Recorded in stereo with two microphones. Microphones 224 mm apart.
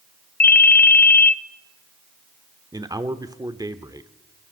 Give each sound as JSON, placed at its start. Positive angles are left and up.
{"t": 0.4, "sound": "a ringtone", "side_deg": 40, "distance_m": 0.7}
{"t": 2.7, "sound": "a man speaking", "side_deg": -15, "distance_m": 0.9}